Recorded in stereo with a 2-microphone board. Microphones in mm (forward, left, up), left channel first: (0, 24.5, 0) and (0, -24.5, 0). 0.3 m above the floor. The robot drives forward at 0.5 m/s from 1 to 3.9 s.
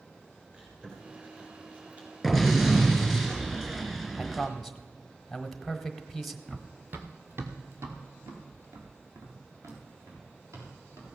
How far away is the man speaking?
About 1.2 m.